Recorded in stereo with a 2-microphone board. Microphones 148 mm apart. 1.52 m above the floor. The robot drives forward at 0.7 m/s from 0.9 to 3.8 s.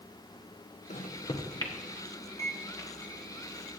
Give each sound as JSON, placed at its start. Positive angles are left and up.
{"t": 0.9, "sound": "a microwave", "side_deg": 50, "distance_m": 0.7}